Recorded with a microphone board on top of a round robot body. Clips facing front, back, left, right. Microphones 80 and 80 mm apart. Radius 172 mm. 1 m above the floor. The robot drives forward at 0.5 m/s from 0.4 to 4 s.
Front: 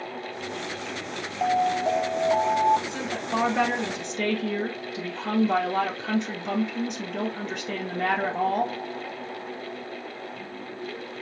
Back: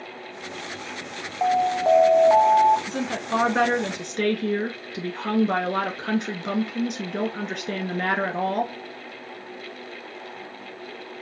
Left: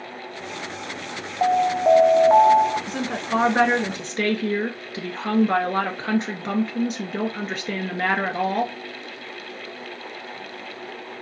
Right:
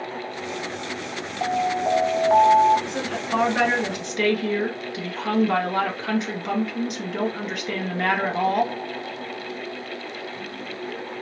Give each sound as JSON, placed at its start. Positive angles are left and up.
{"t": 1.4, "sound": "an alarm", "azimuth_deg": 105, "distance_m": 0.9}
{"t": 2.9, "sound": "a woman speaking", "azimuth_deg": 140, "distance_m": 1.6}